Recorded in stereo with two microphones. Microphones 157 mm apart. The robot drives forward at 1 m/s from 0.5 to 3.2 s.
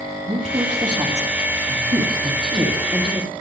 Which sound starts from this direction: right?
A woman speaking, at 0.2 s.